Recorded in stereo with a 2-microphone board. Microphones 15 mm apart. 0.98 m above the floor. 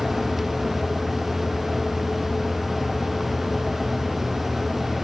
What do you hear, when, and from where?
Only background noise.